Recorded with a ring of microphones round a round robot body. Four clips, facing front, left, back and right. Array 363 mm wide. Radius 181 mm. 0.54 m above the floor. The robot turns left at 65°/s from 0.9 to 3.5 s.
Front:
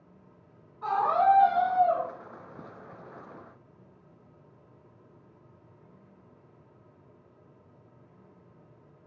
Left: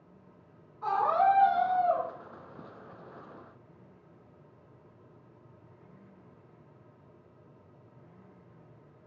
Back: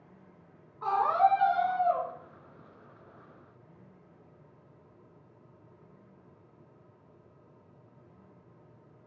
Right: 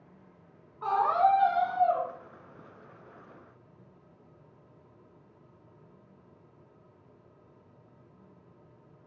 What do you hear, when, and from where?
0.8 s a scream: 135° right, 1.3 m; by 2.1 s 145° left, 1.3 m